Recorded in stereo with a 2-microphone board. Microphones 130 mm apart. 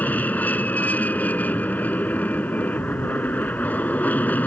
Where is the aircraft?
10° left (ahead or behind).